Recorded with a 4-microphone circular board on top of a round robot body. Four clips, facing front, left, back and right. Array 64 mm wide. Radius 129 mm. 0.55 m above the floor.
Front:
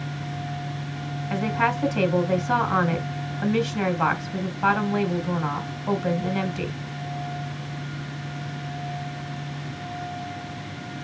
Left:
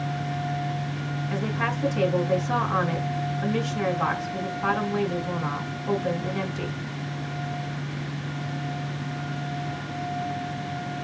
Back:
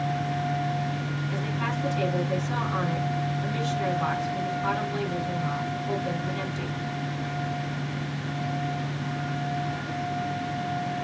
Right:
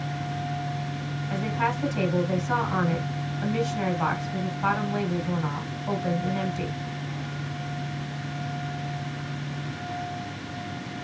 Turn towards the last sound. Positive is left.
turn(degrees=-5)